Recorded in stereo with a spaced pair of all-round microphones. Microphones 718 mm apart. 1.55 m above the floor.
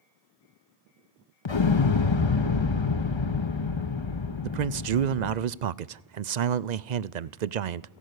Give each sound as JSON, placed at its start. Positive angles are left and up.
{"t": 1.4, "sound": "an explosion", "side_deg": 40, "distance_m": 0.9}
{"t": 4.4, "sound": "a man speaking", "side_deg": -75, "distance_m": 0.7}